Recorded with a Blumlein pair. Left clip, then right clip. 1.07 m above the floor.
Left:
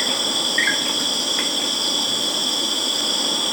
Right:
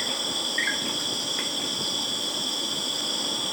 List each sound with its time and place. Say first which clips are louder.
0.0 s an insect: left 7 dB; 20° left